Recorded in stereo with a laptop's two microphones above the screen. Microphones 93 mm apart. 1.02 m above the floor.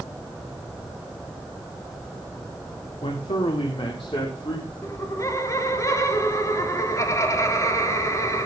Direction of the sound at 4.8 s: 35° left (ahead or behind).